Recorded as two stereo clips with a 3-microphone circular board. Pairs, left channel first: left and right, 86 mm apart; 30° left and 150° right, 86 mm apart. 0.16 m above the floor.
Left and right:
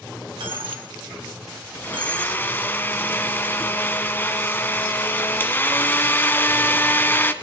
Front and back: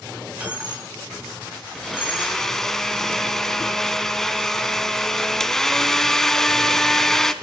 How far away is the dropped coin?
About 3 m.